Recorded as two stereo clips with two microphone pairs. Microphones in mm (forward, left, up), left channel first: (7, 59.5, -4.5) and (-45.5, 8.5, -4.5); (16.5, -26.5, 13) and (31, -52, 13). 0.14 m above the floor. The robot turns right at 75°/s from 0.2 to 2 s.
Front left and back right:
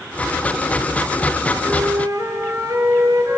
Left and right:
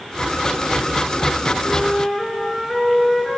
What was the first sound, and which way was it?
A flute, 170° right.